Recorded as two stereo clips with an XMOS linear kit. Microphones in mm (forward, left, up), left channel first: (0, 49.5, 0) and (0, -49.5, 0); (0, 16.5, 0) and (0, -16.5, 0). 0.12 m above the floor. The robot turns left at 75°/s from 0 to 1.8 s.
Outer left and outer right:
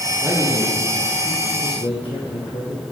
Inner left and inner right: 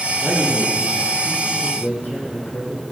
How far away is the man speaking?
About 5.5 m.